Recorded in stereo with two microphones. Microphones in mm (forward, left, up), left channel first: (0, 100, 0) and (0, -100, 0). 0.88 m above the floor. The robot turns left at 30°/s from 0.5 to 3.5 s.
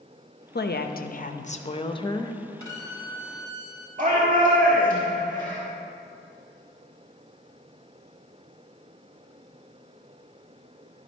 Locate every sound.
0.6 s a woman speaking: 70° left, 0.6 m; by 2.4 s 15° left, 0.6 m
2.6 s a violin: 15° left (ahead or behind), 1.1 m; by 3.9 s 40° left (ahead or behind), 1.1 m
4.0 s a shout: 40° right (ahead or behind), 1.6 m